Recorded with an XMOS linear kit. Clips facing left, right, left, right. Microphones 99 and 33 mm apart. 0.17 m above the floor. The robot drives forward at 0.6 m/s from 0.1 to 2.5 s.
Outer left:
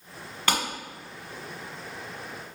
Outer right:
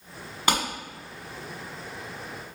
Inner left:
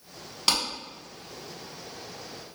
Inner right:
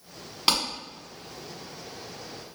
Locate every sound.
0.5 s a clap: 20° right (ahead or behind), 1.4 m; by 0.6 s 15° right (ahead or behind), 1.4 m